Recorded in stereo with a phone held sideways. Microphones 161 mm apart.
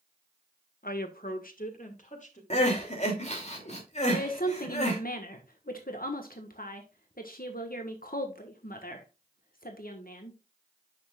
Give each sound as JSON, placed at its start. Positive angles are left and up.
{"t": 0.8, "sound": "a woman speaking", "side_deg": 70, "distance_m": 1.2}
{"t": 2.5, "sound": "crying", "side_deg": 45, "distance_m": 3.0}
{"t": 4.1, "sound": "a woman speaking", "side_deg": 70, "distance_m": 1.3}